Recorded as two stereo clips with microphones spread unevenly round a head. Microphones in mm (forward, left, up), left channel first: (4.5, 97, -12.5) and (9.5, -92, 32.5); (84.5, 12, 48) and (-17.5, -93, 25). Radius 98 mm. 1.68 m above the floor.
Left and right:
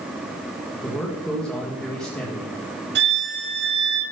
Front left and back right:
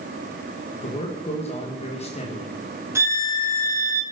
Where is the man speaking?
5° left, 2.0 m.